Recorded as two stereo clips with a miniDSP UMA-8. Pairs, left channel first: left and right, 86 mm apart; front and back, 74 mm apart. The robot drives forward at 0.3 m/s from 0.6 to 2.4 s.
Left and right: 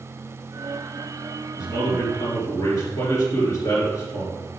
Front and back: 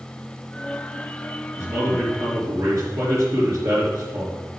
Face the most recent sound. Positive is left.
turn(degrees=135)